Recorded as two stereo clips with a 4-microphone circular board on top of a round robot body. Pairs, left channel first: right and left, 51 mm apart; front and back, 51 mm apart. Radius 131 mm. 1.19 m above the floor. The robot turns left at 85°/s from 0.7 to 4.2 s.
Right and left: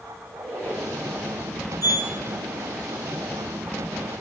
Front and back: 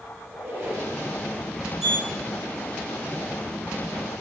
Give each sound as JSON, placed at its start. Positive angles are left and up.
{"t": 0.2, "sound": "a squeak", "azimuth_deg": 130, "distance_m": 1.1}
{"t": 1.8, "sound": "a sliding door", "azimuth_deg": -95, "distance_m": 0.9}